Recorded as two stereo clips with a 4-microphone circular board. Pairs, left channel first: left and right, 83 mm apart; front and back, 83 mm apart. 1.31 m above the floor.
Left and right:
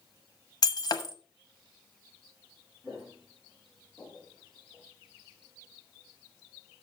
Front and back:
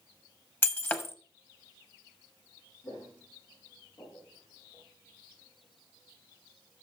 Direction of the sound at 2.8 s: 5° right.